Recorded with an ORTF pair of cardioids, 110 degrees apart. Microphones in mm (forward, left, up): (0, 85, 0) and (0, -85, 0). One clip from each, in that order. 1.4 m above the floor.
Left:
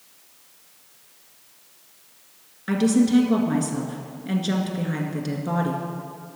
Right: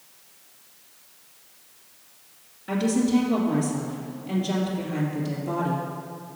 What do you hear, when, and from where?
2.7 s a woman speaking: 70° left, 1.6 m